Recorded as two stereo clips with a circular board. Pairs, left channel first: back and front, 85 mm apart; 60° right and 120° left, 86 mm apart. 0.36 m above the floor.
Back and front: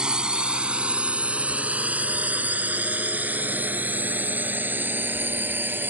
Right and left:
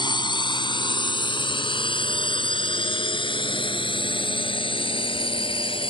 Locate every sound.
0.0 s a drone: 80° right; by 5.9 s 70° right